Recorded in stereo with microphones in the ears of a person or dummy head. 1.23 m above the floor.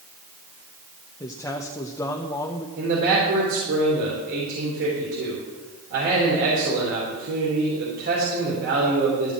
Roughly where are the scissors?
I don't hear scissors.